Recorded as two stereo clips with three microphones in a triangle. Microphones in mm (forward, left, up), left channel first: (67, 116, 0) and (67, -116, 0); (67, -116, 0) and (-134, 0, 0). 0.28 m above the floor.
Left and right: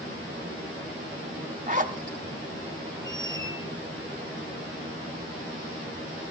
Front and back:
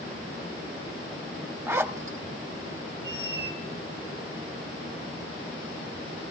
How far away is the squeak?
About 1.0 m.